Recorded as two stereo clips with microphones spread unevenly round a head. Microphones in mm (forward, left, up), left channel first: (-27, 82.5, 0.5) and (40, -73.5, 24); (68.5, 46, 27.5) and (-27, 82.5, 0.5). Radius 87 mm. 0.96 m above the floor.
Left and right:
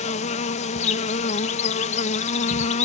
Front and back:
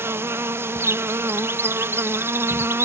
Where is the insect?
120° left.